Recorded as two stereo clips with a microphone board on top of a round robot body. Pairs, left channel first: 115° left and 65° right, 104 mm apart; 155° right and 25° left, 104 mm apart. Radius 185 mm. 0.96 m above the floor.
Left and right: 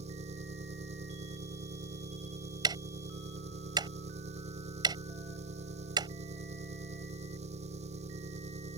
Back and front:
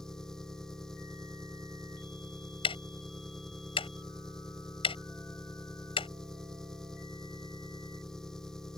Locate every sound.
0.0 s an engine running: 70° right
2.6 s ticking: 120° right